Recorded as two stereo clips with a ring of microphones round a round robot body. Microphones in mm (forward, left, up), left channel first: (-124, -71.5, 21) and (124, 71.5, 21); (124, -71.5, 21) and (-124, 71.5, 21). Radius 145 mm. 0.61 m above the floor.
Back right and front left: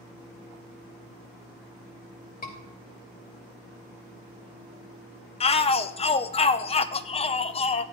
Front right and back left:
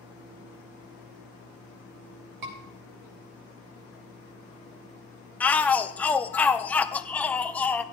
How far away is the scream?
About 3.5 m.